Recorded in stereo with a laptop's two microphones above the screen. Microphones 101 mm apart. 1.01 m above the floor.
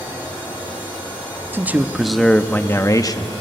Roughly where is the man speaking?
Right.